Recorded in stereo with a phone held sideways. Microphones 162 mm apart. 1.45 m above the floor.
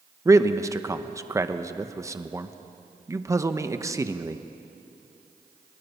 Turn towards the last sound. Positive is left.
turn(degrees=-20)  # may be behind; listen again after turning